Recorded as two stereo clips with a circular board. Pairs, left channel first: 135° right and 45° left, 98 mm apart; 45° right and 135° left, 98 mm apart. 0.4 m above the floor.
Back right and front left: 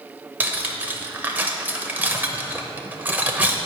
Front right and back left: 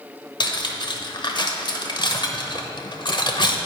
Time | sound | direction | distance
0.4 | cutlery clinking | 25° right | 0.8 m